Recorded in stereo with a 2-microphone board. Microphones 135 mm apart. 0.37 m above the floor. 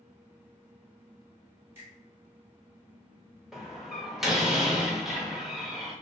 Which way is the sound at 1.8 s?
20° right (ahead or behind).